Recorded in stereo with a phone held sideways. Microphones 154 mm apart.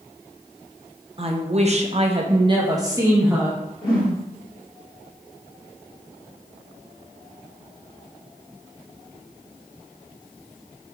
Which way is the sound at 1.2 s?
40° right (ahead or behind).